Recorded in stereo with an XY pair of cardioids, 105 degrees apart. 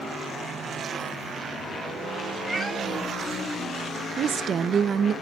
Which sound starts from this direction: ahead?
A cat meowing, at 2.5 s.